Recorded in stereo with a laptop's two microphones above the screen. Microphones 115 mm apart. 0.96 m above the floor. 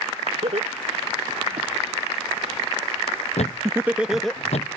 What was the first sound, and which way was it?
Laughter, 80° right.